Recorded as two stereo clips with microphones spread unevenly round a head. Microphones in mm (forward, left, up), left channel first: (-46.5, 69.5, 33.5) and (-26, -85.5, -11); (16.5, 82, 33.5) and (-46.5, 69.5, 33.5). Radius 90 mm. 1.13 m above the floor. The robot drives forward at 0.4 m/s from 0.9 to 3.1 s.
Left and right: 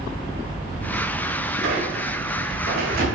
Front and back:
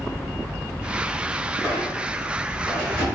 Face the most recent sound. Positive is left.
turn(degrees=-110)